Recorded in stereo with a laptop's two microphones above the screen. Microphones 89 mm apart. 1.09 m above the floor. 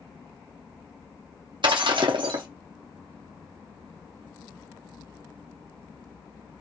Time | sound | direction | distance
1.6 | breaking glass | 60° right (ahead or behind) | 0.8 m